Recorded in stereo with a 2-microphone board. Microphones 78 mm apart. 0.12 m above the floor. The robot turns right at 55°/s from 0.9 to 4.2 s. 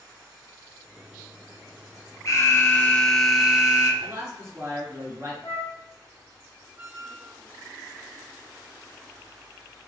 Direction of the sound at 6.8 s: 25° right (ahead or behind).